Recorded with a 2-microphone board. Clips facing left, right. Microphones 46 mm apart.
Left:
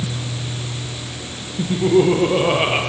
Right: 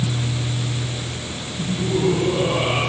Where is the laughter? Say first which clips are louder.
Left 7 dB; 70° left (ahead or behind), 4.5 m; by 2.8 s 50° left (ahead or behind), 4 m.